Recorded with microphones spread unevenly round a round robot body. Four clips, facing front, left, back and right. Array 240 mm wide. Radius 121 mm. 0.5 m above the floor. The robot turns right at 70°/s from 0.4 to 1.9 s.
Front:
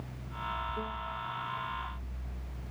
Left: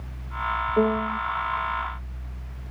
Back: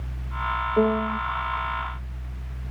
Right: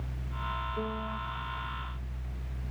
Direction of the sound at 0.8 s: 135° left.